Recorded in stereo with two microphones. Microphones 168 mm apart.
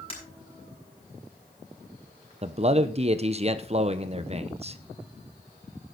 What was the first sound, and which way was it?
Breaking glass, 35° left (ahead or behind).